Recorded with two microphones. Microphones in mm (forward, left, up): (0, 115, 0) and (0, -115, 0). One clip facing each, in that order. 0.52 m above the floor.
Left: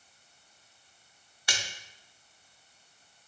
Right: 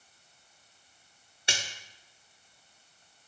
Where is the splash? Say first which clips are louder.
Right 1 dB; 25° right (ahead or behind), 0.7 m.